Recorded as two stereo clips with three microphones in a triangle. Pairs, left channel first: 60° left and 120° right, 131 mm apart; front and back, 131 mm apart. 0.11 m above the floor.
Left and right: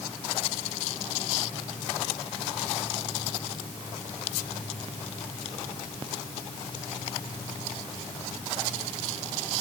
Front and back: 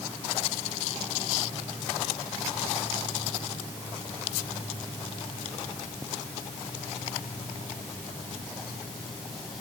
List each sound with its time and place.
Only background noise.